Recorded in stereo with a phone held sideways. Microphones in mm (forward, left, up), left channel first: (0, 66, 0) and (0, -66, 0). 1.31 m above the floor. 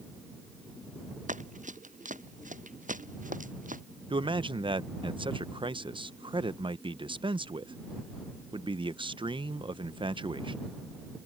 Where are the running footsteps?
70° right (ahead or behind); by 3.8 s 80° right.